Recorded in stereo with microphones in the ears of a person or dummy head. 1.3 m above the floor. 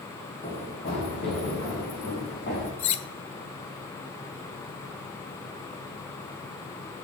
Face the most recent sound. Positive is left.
turn(degrees=30)  # may be behind; listen again after turning